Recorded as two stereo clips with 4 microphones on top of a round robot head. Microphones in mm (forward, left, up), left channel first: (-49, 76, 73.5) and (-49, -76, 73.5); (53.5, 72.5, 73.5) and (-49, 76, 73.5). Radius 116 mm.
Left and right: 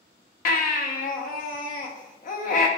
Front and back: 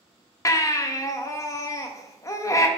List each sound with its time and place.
0.5 s a baby crying: 60° left, 0.6 m